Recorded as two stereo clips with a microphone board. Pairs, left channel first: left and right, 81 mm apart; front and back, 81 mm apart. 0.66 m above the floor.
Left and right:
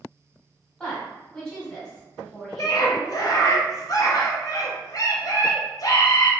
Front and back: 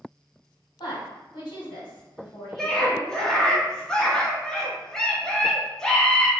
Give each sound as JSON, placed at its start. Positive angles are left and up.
{"t": 0.8, "sound": "a woman speaking", "azimuth_deg": 10, "distance_m": 1.7}
{"t": 2.6, "sound": "a scream", "azimuth_deg": 80, "distance_m": 0.8}